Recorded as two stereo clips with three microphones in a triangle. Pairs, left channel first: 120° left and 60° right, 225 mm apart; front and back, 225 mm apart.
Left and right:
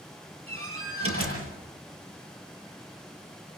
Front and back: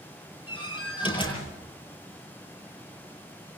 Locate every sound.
0.5 s a door slam: 65° right, 8.5 m